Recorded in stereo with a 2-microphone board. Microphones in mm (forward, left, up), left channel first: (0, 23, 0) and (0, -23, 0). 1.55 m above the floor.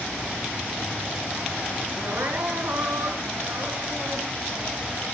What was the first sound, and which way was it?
Crying, 70° right (ahead or behind).